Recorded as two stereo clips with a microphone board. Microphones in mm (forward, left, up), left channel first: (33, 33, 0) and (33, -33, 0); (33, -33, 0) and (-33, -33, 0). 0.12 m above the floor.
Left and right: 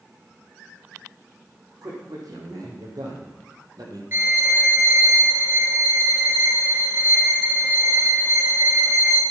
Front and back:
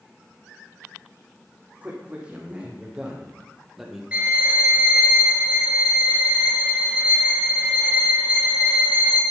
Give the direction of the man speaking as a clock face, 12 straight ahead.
4 o'clock.